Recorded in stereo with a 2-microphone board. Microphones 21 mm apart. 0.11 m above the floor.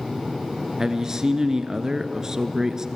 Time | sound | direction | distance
0.8 | a man speaking | 25° right (ahead or behind) | 1.4 m